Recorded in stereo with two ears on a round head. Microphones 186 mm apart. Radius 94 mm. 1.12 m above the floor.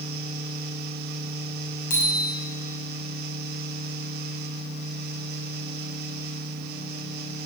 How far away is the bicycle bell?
About 5.5 m.